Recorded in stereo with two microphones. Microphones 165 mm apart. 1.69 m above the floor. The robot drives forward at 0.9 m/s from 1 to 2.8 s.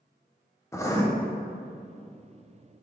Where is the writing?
15° left (ahead or behind), 0.9 m.